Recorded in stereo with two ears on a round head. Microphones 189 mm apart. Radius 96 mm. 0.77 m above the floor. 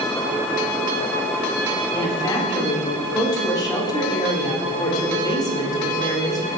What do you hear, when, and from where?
1.9 s a woman speaking: 20° left (ahead or behind), 1.8 m